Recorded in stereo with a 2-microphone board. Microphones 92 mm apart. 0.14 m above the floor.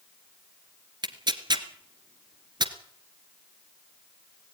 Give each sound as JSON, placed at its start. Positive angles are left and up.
{"t": 1.0, "sound": "tearing paper", "side_deg": -55, "distance_m": 1.4}